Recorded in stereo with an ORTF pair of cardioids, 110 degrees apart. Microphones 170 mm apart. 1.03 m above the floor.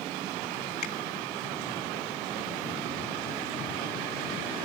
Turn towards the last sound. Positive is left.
turn(degrees=55)